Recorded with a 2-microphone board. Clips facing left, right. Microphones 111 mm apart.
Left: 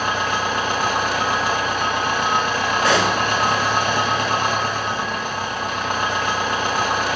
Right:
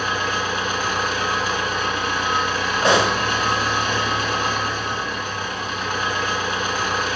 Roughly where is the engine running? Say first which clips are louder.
Left 2 dB; left.